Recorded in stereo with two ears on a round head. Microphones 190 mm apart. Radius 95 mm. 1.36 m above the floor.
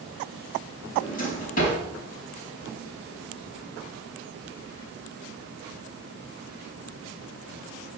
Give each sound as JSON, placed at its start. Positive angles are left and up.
{"t": 1.0, "sound": "a drawer", "side_deg": 40, "distance_m": 5.0}